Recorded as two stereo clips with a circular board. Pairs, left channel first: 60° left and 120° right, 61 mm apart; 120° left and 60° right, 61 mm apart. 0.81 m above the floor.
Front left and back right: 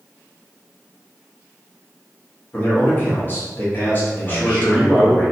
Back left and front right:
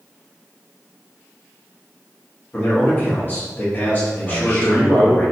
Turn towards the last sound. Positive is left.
turn(degrees=120)